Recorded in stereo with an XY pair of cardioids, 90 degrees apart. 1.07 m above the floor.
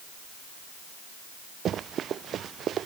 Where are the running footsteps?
65° right.